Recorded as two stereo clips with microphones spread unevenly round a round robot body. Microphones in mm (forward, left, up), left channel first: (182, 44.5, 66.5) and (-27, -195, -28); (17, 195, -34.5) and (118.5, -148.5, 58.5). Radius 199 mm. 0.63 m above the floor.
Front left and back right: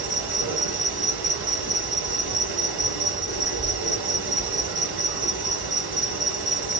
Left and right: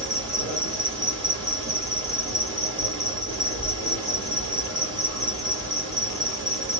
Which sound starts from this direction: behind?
An insect, at 0.0 s.